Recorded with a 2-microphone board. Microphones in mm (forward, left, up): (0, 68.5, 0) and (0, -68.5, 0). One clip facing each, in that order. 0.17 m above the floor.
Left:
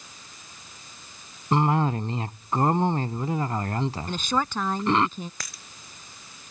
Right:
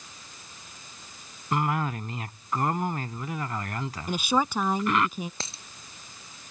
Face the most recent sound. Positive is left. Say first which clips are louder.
# right 3 dB
turn(degrees=-25)  # may be behind; listen again after turning